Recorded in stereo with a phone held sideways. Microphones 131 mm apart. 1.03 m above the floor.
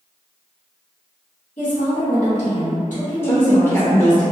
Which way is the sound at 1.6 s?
75° left (ahead or behind).